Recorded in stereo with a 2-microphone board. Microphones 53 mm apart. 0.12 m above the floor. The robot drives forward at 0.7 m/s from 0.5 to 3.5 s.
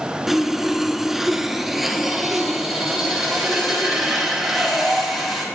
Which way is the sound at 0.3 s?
5° right (ahead or behind).